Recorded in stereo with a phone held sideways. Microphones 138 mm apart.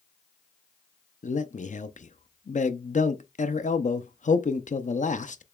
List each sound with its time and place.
1.2 s a man speaking: 60° left (ahead or behind), 0.5 m